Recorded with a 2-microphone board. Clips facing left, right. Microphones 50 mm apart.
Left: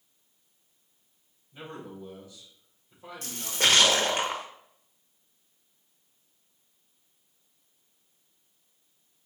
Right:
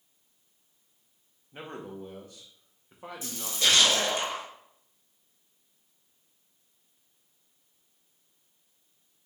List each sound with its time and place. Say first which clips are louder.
1.5 s a man speaking: right 1 dB; 55° right (ahead or behind), 1.1 m
3.2 s a splash: left 2 dB; 55° left (ahead or behind), 0.8 m